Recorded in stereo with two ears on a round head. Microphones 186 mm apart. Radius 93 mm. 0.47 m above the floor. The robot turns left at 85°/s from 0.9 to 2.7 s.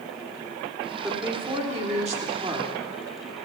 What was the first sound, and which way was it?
A woman speaking, 5° right.